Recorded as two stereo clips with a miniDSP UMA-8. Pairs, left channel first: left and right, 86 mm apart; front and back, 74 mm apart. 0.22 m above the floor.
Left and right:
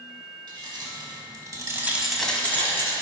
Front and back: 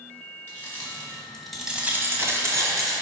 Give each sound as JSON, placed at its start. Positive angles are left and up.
{"t": 0.5, "sound": "keys jangling", "azimuth_deg": -65, "distance_m": 2.5}